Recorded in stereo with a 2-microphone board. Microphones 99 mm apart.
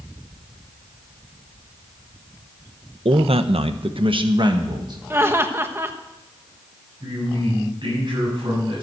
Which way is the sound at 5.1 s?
25° right (ahead or behind).